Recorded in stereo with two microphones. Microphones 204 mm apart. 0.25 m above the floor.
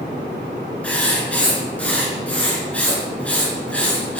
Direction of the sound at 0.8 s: 5° left (ahead or behind).